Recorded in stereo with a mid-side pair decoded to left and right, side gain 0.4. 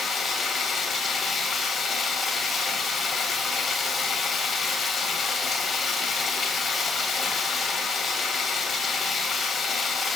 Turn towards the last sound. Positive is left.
turn(degrees=55)